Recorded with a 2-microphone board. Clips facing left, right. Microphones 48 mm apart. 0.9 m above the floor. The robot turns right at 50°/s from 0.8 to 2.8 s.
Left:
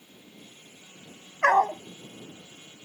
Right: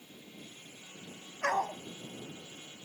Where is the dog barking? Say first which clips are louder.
Left 10 dB; 65° left (ahead or behind); by 1.8 s 75° left (ahead or behind).